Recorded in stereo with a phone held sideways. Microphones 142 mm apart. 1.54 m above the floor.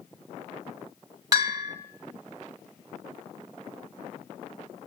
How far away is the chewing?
I don't hear chewing.